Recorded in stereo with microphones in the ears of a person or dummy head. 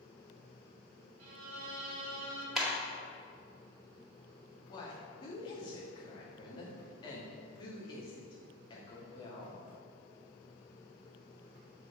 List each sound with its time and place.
1.2 s a violin: 85° right, 2 m
2.5 s a clap: centre (ahead or behind), 2 m
4.7 s a woman speaking: 30° left (ahead or behind), 2.5 m